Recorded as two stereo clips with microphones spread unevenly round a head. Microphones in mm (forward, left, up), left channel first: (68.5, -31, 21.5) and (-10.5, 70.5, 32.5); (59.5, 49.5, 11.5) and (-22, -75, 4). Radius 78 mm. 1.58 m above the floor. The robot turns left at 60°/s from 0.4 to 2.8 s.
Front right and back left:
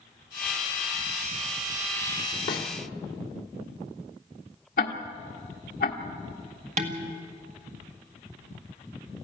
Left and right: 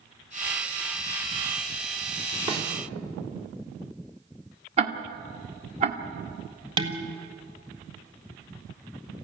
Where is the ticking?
85° right, 1.4 m.